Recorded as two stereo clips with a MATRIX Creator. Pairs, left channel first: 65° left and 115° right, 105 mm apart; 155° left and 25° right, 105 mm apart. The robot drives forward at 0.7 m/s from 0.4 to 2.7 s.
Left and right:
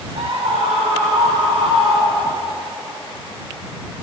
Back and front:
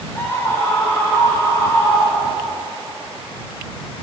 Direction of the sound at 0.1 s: 135° right.